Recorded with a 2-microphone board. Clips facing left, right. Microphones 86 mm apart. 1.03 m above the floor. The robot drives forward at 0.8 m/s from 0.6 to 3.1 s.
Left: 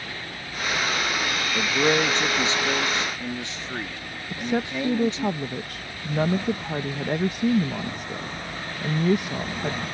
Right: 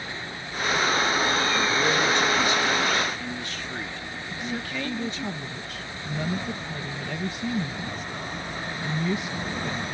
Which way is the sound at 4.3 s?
55° left (ahead or behind).